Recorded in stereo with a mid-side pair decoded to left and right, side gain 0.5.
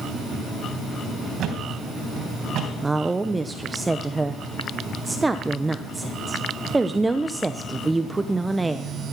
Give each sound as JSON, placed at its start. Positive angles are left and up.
{"t": 1.4, "sound": "a thud", "azimuth_deg": -60, "distance_m": 3.0}
{"t": 2.8, "sound": "a woman speaking", "azimuth_deg": -15, "distance_m": 0.7}